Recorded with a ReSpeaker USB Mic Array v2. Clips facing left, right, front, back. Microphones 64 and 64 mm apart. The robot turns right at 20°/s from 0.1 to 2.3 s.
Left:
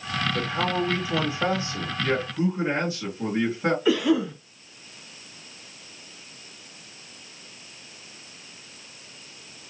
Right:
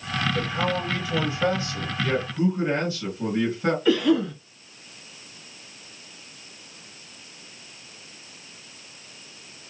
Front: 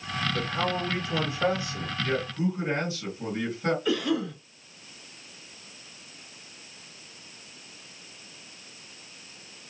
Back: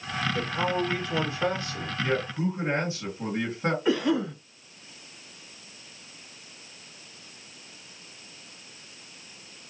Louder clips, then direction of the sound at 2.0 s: Right 1 dB, back 1 dB; 145° left.